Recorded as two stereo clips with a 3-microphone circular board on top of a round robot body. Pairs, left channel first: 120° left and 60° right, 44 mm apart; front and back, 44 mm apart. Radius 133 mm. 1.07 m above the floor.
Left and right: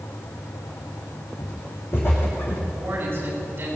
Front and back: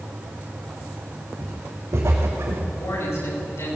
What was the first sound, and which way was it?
Footsteps, 155° left.